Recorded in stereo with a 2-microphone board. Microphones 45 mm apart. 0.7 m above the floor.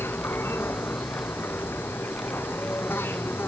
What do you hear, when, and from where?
0.0 s an insect: 55° left (ahead or behind)